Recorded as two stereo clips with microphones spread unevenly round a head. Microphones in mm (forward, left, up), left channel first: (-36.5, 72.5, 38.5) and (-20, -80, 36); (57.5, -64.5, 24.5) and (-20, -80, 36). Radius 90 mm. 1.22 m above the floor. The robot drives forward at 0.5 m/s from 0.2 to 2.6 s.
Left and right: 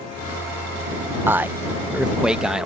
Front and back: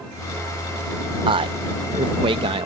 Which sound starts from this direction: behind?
A man speaking, at 1.3 s.